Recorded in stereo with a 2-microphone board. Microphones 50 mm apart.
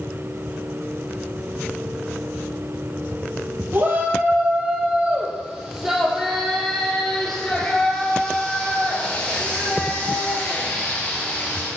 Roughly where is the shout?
Right.